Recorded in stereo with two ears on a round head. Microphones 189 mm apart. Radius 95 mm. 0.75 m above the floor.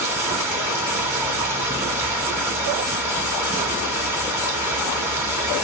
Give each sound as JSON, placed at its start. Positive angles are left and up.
{"t": 0.0, "sound": "running water", "side_deg": -10, "distance_m": 0.8}